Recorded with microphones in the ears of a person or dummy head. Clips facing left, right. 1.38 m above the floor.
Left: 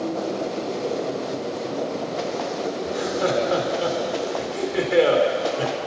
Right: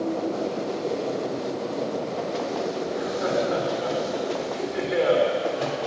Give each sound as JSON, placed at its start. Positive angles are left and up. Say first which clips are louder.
{"t": 2.9, "sound": "laughter", "louder": "left 3 dB", "side_deg": 55, "distance_m": 5.0}